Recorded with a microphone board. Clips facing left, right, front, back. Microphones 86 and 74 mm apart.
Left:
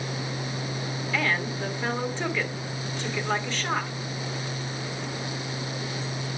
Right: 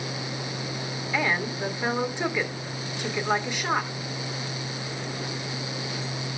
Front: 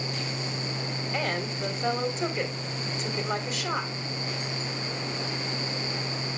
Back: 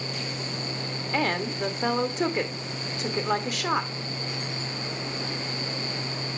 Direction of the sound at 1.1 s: 165° right.